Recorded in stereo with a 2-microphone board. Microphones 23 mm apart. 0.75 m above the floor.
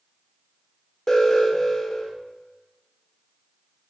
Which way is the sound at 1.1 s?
25° left (ahead or behind).